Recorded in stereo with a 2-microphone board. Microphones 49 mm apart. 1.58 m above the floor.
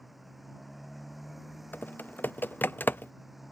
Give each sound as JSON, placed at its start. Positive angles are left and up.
{"t": 0.0, "sound": "a motorcycle", "side_deg": 0}
{"t": 1.7, "sound": "typing on a keyboard", "side_deg": 40}